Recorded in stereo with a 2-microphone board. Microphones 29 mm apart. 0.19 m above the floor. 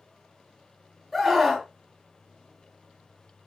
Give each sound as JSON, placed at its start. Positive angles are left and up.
{"t": 1.1, "sound": "a scream", "side_deg": -10, "distance_m": 1.0}